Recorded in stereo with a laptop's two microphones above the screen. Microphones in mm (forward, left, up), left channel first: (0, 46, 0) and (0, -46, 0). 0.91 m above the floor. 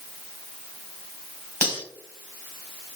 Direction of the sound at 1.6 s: 20° left (ahead or behind).